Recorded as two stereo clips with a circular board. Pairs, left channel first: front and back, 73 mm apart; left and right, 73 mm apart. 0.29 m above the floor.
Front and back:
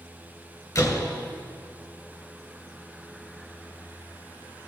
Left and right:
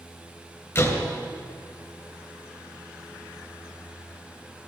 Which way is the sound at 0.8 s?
40° left.